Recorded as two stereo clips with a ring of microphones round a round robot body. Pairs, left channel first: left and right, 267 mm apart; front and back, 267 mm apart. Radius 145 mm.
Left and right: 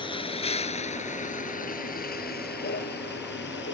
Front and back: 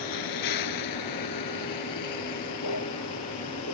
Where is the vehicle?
20° left; by 3.7 s 40° left.